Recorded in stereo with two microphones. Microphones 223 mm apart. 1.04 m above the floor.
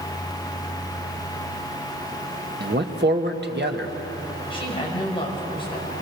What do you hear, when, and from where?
2.6 s a man speaking: 50° right (ahead or behind), 1.5 m
4.5 s a woman speaking: 25° left (ahead or behind), 5.5 m